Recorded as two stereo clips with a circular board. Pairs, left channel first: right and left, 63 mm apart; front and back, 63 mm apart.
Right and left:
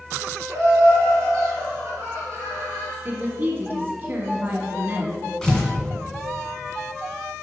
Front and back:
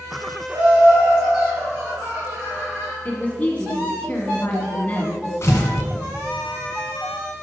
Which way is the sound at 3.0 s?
50° left.